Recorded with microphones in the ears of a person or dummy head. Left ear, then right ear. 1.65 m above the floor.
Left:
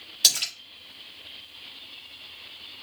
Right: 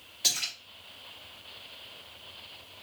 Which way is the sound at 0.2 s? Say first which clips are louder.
Left 7 dB; 35° left (ahead or behind).